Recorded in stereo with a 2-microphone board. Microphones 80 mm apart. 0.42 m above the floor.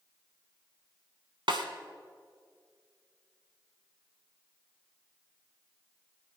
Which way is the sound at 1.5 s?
85° right.